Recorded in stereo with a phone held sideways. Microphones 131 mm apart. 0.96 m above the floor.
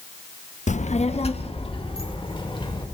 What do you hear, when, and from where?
0.7 s a child speaking: 60° left (ahead or behind), 0.8 m; by 2.8 s 35° left (ahead or behind), 3.5 m